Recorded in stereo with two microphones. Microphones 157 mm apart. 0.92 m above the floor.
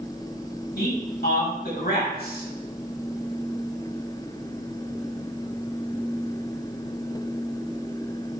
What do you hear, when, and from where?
0.8 s a man speaking: 85° left, 4 m; by 2.5 s 75° left (ahead or behind), 4.5 m